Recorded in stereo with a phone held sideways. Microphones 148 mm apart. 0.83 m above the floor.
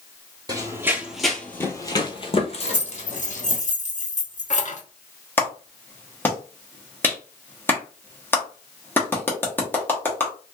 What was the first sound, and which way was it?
Running footsteps, 25° right (ahead or behind).